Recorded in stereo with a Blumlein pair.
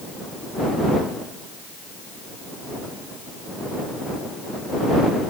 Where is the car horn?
No car horn in this recording.